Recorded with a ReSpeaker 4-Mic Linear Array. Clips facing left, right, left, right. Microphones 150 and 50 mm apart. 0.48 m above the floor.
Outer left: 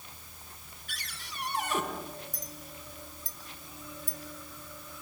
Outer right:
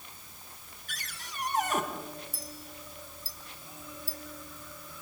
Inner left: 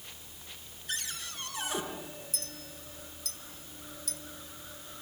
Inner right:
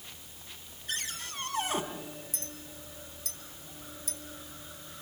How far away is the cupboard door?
About 3.5 m.